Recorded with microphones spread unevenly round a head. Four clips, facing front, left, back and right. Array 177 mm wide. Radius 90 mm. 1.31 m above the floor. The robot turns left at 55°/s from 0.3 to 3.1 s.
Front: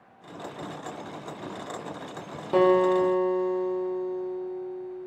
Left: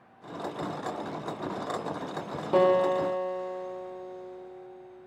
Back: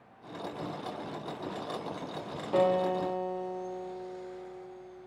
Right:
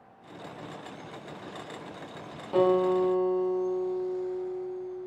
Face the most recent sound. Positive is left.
turn(degrees=20)